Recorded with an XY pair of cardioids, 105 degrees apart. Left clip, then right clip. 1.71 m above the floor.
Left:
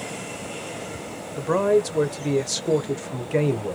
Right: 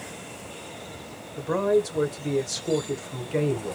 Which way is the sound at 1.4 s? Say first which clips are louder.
Left 3 dB; 40° left.